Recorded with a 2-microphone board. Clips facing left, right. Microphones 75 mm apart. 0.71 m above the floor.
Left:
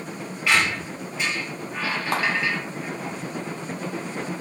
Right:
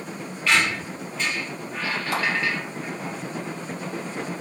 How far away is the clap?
About 1.4 m.